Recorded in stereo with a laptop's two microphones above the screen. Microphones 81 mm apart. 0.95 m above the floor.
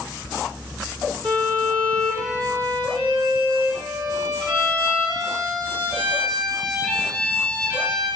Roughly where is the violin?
Right.